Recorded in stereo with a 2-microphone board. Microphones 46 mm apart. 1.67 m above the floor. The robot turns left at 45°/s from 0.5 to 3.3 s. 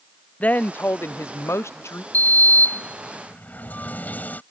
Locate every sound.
0.4 s a woman speaking: 145° left; by 2.0 s 75° left
2.1 s a sliding door: 110° left; by 4.4 s 60° left